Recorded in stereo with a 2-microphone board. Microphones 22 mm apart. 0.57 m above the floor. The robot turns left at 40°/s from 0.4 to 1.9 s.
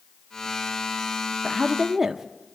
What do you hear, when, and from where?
1.4 s a woman speaking: 20° right (ahead or behind), 0.6 m; by 2.2 s 15° right (ahead or behind), 0.6 m